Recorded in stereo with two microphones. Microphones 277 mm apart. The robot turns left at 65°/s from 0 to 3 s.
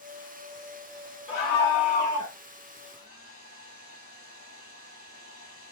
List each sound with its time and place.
1.3 s a scream: 160° left, 0.9 m; by 2.4 s 90° left, 0.9 m
2.8 s a hair dryer: 45° left (ahead or behind), 1.7 m; by 5.7 s 50° left (ahead or behind), 1.7 m